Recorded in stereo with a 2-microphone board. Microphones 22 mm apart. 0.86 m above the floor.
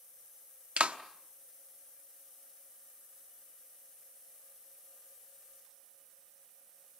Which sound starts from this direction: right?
A clap, at 0.8 s.